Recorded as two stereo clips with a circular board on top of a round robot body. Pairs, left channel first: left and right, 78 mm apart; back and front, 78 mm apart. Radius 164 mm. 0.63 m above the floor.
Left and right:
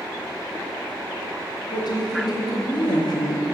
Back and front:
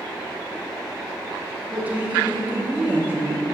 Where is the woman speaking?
70° left, 1.4 m.